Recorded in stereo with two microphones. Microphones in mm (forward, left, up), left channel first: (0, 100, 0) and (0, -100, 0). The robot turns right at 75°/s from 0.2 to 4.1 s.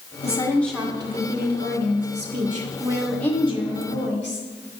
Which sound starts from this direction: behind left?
A woman speaking, at 0.2 s.